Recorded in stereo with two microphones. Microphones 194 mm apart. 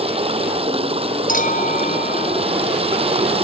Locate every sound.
0.0 s running water: 30° right (ahead or behind)
1.3 s a clink: 45° left (ahead or behind)